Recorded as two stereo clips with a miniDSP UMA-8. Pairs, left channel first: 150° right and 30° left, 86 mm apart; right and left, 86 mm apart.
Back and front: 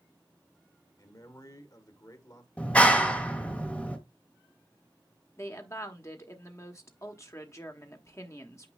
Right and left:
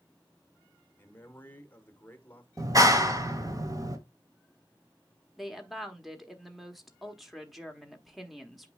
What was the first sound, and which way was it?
A man speaking, 145° right.